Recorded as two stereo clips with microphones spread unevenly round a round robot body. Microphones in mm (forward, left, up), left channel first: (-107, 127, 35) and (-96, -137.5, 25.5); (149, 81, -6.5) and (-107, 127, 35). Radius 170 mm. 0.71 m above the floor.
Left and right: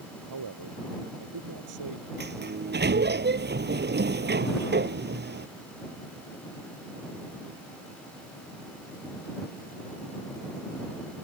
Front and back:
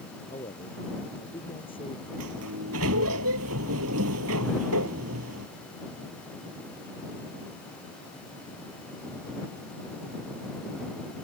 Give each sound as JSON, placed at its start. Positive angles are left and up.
{"t": 0.3, "sound": "a man speaking", "azimuth_deg": -85}
{"t": 2.2, "sound": "a sliding door", "azimuth_deg": -140}